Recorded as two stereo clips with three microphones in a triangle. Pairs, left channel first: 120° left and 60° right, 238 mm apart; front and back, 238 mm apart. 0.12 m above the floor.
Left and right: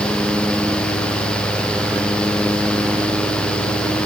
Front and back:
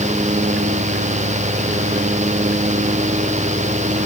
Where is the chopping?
I don't hear chopping.